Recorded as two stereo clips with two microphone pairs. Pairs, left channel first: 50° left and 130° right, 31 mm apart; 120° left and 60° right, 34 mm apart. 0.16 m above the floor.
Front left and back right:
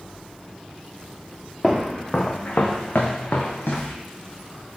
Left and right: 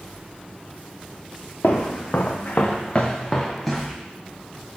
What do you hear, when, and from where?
1.6 s footsteps: 130° left, 1.1 m; by 4.0 s 30° left, 1.4 m